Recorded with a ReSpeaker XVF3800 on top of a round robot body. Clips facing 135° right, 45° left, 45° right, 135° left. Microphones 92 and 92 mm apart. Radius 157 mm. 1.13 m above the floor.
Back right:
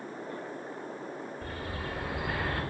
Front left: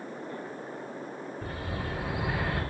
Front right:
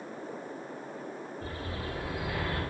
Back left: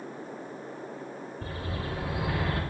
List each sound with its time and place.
1.4 s a bird: 130° left, 3 m